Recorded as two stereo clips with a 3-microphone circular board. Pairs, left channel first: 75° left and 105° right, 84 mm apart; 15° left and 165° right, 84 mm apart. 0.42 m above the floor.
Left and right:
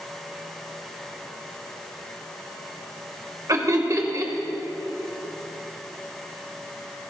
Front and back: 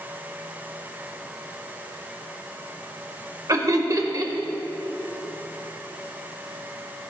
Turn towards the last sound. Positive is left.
turn(degrees=-140)